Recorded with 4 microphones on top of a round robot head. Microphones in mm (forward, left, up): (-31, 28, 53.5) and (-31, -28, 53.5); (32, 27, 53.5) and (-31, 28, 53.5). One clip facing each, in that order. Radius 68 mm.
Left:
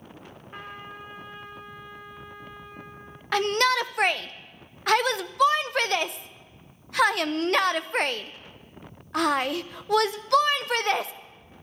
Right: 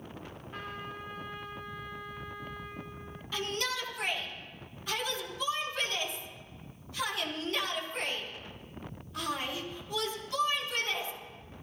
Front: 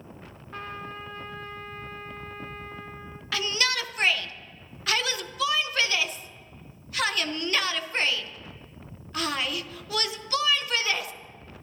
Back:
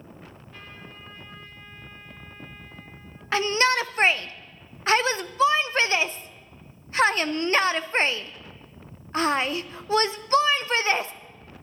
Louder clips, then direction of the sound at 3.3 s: Left 12 dB, back 6 dB; 120° left.